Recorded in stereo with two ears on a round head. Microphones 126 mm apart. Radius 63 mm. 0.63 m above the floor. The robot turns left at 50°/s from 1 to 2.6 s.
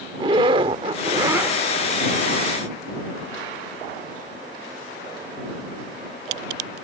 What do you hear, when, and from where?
0.1 s a zipper: 35° right (ahead or behind); by 1.6 s 5° right (ahead or behind)